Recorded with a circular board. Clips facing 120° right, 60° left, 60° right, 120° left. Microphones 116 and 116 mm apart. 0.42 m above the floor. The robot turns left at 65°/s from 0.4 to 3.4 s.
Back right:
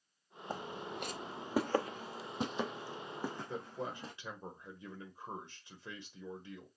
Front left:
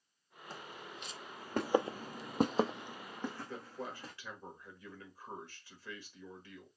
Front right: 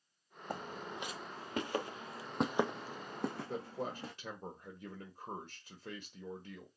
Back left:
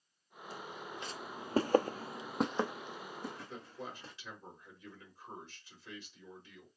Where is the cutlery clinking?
No cutlery clinking in this recording.